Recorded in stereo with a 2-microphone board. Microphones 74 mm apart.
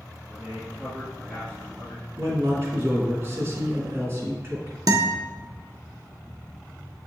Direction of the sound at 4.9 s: 60° right (ahead or behind).